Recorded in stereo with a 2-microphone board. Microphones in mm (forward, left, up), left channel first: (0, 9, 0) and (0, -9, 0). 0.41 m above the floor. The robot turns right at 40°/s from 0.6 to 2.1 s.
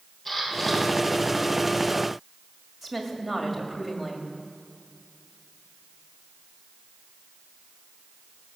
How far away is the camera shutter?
About 3.5 m.